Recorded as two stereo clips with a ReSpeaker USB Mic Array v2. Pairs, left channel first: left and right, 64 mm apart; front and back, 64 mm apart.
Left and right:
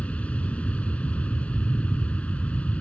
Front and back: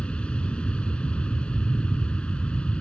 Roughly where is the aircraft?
Ahead left.